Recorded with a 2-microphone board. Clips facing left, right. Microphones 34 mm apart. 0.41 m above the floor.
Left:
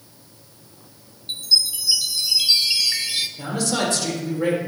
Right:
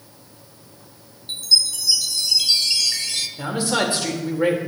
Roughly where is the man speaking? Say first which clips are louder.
Right 4 dB; right.